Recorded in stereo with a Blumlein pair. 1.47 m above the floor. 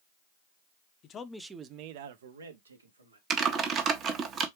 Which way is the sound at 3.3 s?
30° right.